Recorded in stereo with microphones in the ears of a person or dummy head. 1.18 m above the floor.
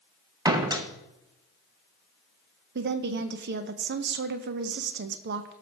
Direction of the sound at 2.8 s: 50° right (ahead or behind).